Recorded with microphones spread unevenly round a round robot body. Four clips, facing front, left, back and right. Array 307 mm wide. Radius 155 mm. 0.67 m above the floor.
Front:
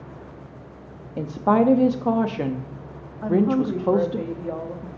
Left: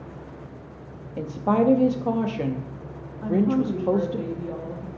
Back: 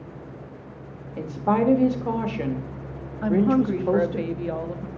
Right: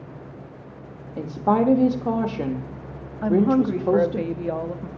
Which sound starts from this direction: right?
A woman speaking, at 3.2 s.